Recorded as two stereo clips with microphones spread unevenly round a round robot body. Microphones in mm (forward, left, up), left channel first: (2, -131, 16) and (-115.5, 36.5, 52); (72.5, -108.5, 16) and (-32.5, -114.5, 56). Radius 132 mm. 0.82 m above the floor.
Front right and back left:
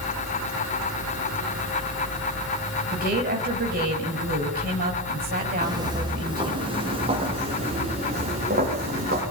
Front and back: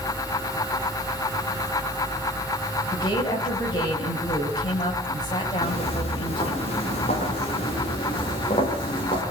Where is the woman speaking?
65° left, 5.5 m.